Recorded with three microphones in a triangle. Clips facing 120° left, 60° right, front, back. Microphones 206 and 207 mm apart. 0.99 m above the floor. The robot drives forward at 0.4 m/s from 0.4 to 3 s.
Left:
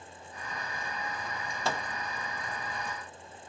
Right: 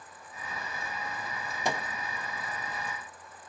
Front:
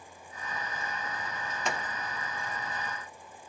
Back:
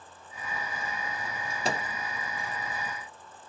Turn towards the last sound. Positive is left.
turn(degrees=-150)